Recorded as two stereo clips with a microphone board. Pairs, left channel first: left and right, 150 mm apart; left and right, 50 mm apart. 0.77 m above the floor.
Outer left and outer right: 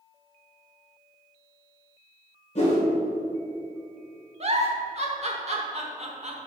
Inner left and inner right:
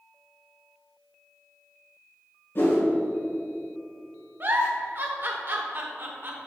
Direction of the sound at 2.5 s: 50° left (ahead or behind).